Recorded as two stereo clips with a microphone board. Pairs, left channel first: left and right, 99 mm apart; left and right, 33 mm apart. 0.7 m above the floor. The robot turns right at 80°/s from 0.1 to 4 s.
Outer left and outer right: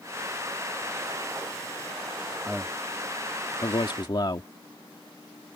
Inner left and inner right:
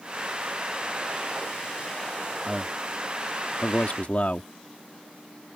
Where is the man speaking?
10° right (ahead or behind); by 4.5 s 50° left (ahead or behind).